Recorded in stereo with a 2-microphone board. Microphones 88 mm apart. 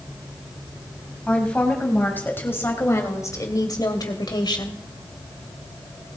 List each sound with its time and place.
1.3 s a woman speaking: 15° left (ahead or behind), 3.5 m; by 4.8 s 65° left (ahead or behind), 2.5 m